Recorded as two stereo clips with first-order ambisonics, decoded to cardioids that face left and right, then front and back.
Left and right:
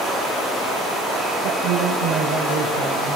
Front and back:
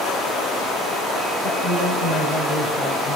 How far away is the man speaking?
About 3.5 m.